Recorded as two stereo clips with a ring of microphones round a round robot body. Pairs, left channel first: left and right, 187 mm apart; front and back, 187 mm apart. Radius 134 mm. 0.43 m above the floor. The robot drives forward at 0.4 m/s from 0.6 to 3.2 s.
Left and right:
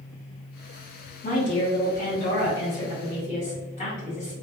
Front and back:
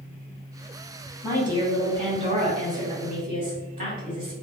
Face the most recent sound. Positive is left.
turn(degrees=145)